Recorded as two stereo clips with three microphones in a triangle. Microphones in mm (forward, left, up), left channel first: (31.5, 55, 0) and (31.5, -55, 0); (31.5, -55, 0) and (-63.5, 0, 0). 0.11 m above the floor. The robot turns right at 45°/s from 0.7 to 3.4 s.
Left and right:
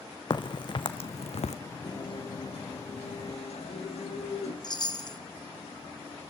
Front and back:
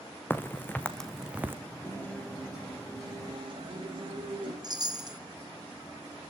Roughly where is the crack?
Ahead left.